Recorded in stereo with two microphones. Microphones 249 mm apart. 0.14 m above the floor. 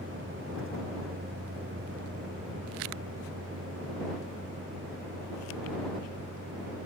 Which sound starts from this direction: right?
A vehicle, at 0.0 s.